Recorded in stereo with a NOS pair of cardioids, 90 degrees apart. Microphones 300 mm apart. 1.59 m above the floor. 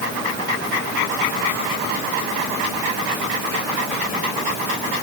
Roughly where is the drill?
I don't hear a drill.